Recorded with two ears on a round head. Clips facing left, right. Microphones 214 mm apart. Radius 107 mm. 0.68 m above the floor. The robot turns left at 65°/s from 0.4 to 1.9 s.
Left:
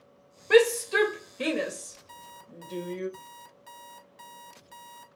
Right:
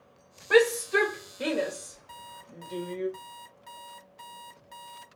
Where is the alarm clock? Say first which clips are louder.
Even; 10° left (ahead or behind), 0.7 m.